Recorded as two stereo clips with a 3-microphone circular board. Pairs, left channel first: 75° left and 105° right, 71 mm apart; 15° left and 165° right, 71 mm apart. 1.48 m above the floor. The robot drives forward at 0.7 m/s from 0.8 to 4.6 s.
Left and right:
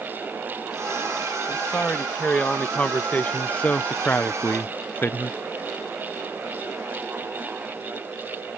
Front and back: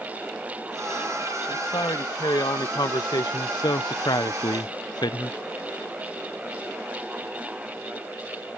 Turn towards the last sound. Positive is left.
turn(degrees=15)